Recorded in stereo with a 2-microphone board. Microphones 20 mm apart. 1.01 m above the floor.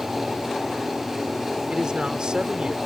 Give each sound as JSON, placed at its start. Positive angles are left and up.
{"t": 1.7, "sound": "a man speaking", "side_deg": -45}